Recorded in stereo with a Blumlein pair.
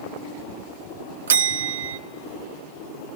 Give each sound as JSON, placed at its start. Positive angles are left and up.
{"t": 1.3, "sound": "a bell", "azimuth_deg": -65, "distance_m": 0.7}